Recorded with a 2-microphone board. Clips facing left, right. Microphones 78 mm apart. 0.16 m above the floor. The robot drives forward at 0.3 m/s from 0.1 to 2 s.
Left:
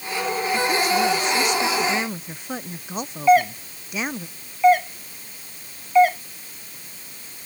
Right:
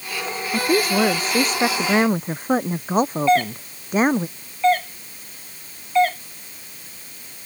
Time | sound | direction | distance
0.5 | a woman speaking | 45° right (ahead or behind) | ?
3.3 | a doorbell | 10° left (ahead or behind) | ?